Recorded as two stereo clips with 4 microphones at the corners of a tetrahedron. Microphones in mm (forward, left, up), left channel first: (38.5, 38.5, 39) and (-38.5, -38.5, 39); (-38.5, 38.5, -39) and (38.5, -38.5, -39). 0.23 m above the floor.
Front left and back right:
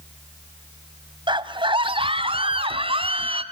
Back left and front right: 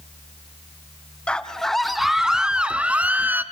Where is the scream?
145° right, 1.8 m; by 3.4 s 115° right, 2.5 m.